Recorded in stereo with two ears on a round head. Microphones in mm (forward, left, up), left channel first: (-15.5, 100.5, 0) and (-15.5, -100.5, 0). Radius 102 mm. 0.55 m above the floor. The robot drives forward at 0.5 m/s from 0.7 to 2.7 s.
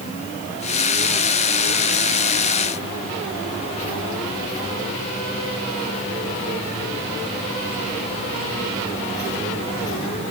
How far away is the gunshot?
I don't hear a gunshot.